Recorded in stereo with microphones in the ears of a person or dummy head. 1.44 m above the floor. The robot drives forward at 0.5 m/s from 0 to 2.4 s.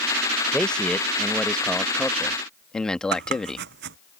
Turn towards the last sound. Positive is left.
turn(degrees=-60)  # may be behind; listen again after turning